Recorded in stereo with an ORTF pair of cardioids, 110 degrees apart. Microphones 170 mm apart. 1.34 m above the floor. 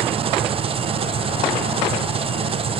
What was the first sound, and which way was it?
An engine running, 35° right.